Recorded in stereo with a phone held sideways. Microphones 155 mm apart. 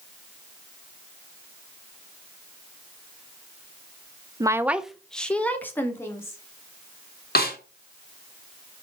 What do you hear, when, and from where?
4.4 s a woman speaking: 25° right (ahead or behind), 0.6 m; by 6.4 s 15° left (ahead or behind), 2 m
7.3 s a snare drum: 75° left (ahead or behind), 1.8 m